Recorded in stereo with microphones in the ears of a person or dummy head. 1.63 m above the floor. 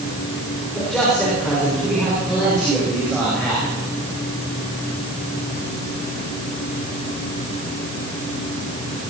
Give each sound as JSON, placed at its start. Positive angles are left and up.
{"t": 0.7, "sound": "a man speaking", "side_deg": 0, "distance_m": 4.5}